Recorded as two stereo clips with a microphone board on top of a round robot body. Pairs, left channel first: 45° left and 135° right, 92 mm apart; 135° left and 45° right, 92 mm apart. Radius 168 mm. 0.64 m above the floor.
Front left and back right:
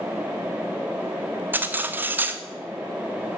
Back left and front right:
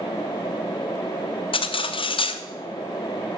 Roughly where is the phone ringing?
I don't hear a phone ringing.